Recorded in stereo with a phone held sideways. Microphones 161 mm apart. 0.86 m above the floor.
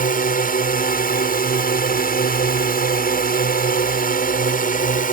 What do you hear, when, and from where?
0.0 s a drone: 60° left (ahead or behind)